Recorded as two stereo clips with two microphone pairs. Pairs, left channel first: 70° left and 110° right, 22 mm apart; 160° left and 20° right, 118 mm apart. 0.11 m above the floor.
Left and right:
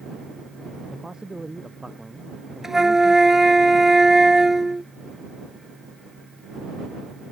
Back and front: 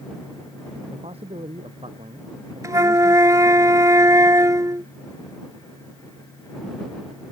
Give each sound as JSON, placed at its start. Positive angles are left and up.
{"t": 0.9, "sound": "a man speaking", "azimuth_deg": -55}
{"t": 2.6, "sound": "a flute", "azimuth_deg": -55}